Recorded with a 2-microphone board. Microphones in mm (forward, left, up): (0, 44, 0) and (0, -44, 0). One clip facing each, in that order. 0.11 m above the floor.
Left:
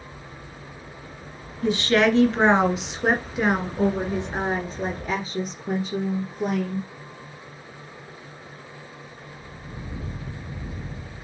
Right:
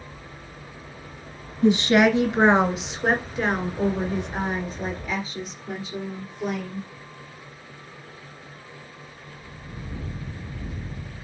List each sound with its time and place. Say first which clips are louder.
1.6 s a woman speaking: right 2 dB; 20° right (ahead or behind), 1.7 m; by 6.9 s 55° left (ahead or behind), 2.5 m